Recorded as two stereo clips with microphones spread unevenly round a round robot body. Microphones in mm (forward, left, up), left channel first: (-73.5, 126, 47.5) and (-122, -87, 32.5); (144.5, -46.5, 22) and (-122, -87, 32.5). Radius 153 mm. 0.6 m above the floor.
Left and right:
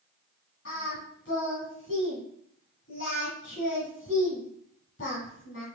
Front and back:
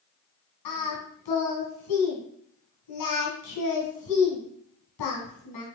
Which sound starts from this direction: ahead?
Singing, at 0.7 s.